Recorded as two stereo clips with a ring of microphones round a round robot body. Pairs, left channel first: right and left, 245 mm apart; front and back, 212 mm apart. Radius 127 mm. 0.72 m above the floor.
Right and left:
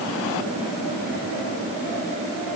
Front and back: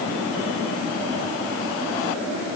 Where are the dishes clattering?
I don't hear dishes clattering.